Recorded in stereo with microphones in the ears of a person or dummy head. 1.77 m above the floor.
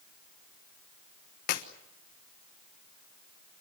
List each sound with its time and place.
1.5 s a clap: 55° left (ahead or behind), 1.4 m